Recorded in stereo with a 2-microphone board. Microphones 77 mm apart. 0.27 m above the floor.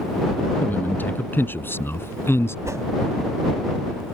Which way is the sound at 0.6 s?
25° left (ahead or behind).